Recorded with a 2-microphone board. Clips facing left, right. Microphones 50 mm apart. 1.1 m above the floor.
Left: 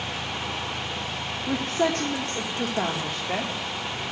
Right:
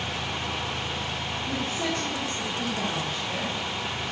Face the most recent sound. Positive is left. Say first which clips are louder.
# left 6 dB
turn(degrees=65)  # may be behind; listen again after turning